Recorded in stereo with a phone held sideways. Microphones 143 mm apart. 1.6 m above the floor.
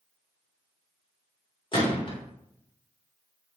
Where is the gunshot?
40° left (ahead or behind), 1.4 m.